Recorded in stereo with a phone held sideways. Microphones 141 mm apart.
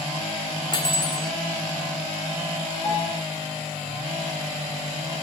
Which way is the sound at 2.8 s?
30° left (ahead or behind).